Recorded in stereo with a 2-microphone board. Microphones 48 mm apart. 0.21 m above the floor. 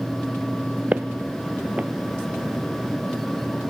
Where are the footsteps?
30° right (ahead or behind), 0.9 m.